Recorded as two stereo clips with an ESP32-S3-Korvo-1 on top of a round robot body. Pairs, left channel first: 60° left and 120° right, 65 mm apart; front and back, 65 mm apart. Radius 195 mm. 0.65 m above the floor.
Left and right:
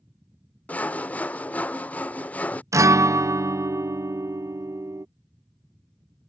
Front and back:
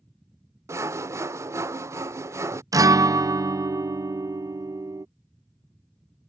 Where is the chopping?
No chopping in this recording.